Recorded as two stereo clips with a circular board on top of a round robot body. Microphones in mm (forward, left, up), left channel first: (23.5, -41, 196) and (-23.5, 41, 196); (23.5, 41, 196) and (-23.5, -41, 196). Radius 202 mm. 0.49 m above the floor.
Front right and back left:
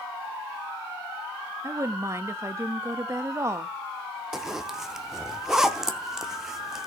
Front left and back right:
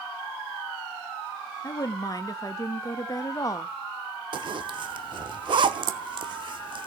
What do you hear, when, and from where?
1.6 s a woman speaking: 80° left, 0.9 m
4.3 s a zipper: 155° right, 0.8 m